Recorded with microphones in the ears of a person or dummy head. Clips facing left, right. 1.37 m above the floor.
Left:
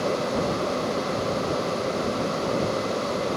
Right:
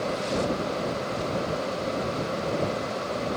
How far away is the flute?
No flute in this recording.